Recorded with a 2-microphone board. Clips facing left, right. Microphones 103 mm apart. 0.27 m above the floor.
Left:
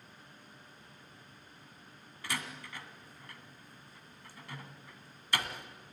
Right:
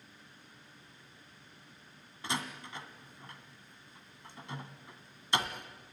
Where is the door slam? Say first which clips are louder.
Right 3 dB; 25° right (ahead or behind), 1.9 m.